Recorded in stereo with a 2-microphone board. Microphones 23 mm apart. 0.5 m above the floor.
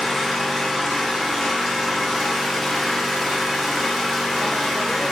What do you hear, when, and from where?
0.0 s an engine running: 10° left (ahead or behind), 0.7 m